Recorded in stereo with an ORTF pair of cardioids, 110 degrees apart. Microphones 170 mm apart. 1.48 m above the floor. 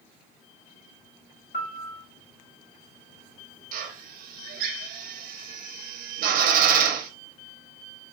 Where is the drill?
60° right, 0.6 m.